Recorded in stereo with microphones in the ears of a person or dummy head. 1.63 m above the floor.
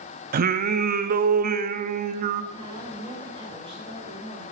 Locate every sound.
0.3 s singing: 50° right (ahead or behind), 0.7 m
2.5 s a woman speaking: 30° right (ahead or behind), 6 m